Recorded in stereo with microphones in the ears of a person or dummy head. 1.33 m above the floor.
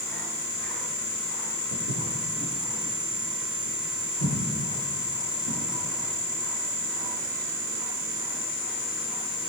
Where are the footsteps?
70° left (ahead or behind), 3.5 m.